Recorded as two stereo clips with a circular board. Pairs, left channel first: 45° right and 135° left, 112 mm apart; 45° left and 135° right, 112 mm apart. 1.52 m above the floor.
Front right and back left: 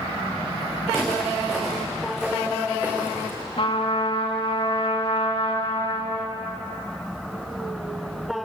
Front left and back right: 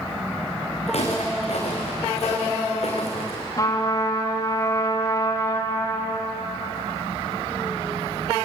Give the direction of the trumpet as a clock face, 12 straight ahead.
12 o'clock.